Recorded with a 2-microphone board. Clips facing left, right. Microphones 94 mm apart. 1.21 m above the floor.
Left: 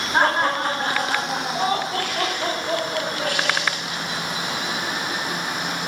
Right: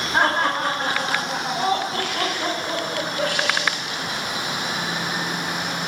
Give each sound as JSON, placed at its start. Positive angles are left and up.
{"t": 0.1, "sound": "laughter", "side_deg": 0, "distance_m": 3.5}